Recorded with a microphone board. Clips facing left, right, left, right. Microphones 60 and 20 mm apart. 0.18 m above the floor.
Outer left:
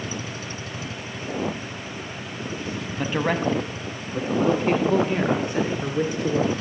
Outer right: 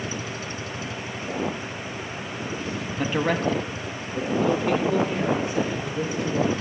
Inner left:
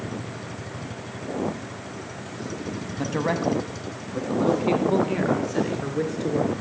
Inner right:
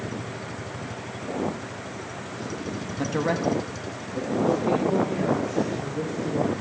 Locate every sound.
3.0 s a man speaking: centre (ahead or behind), 1.0 m; by 6.6 s 60° left (ahead or behind), 2.5 m